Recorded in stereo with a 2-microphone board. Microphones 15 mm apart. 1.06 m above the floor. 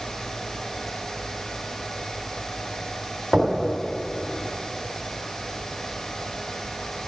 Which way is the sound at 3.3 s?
30° right (ahead or behind).